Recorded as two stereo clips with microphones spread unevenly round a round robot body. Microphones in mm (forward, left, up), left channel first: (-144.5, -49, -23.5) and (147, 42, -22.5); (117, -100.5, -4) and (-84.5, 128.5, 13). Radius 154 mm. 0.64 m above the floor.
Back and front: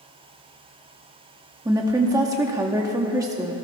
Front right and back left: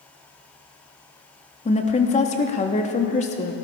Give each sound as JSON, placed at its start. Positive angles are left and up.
{"t": 1.6, "sound": "a woman speaking", "azimuth_deg": -45, "distance_m": 1.0}